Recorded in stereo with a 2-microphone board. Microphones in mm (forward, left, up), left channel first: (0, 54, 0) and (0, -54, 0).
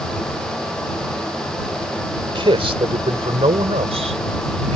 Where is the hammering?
No hammering in this recording.